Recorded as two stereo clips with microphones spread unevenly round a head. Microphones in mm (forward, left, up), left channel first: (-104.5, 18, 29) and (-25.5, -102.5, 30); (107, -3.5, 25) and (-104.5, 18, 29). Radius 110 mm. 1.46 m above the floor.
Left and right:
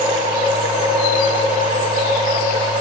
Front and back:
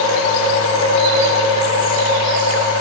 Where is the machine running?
5° left, 1.4 m.